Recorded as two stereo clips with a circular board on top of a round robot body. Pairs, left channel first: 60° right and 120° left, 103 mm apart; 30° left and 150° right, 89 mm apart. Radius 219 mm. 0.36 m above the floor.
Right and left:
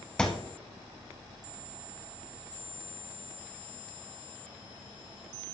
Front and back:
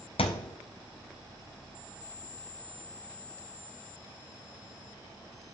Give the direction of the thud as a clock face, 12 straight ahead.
11 o'clock.